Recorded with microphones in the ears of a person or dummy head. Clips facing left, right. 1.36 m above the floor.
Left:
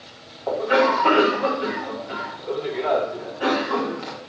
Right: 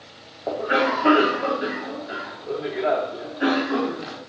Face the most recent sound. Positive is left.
turn(degrees=-20)  # may be behind; listen again after turning